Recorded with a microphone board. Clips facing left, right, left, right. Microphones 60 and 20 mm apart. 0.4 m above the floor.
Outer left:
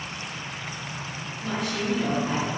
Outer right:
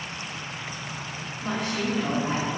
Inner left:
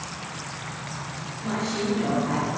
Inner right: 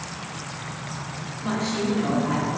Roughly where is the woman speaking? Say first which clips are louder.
Even, inner right 2 dB; right.